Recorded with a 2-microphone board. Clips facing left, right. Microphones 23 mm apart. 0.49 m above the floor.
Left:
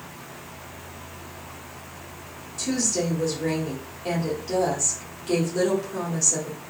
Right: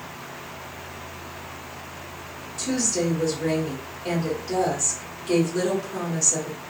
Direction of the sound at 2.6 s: Centre (ahead or behind).